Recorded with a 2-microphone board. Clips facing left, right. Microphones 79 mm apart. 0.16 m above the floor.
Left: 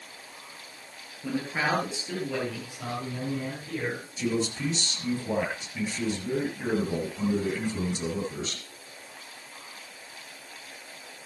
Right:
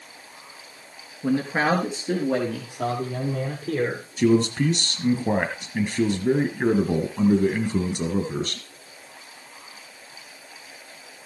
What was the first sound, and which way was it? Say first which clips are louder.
A man speaking: right 7 dB; 40° right (ahead or behind).